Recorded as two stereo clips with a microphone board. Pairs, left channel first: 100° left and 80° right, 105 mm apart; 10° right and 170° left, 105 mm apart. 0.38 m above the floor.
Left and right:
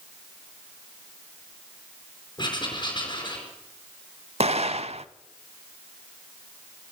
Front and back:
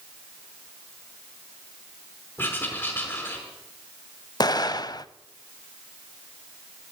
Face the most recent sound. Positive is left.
turn(degrees=-65)